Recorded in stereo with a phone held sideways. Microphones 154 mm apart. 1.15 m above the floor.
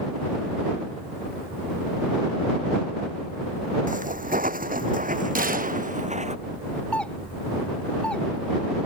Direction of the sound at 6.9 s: 5° left (ahead or behind).